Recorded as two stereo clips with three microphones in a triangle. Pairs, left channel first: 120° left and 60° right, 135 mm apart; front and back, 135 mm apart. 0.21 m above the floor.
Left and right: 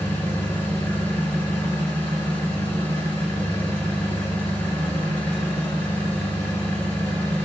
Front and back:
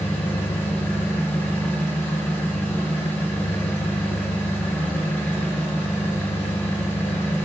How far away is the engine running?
About 1.2 m.